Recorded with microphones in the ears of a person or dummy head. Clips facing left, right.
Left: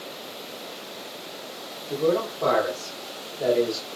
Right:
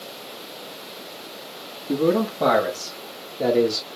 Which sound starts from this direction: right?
A man speaking, at 1.9 s.